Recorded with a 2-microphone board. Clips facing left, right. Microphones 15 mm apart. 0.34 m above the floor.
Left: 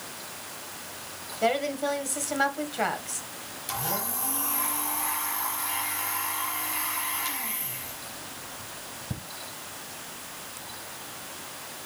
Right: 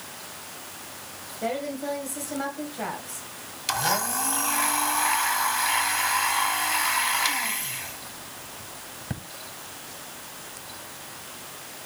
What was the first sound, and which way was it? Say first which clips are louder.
A woman speaking: left 4 dB; 35° left (ahead or behind).